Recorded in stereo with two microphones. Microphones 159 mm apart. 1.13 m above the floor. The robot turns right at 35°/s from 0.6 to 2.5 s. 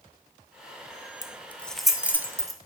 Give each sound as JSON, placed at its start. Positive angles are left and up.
{"t": 1.2, "sound": "keys jangling", "side_deg": 20, "distance_m": 0.5}